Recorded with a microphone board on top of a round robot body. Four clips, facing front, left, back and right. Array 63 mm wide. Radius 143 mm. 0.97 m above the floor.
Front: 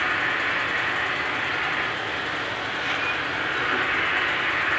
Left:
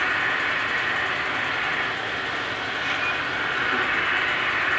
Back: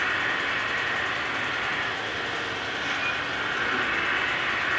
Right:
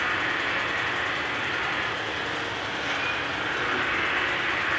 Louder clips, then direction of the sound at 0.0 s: Left 3 dB, front 2 dB; 35° left.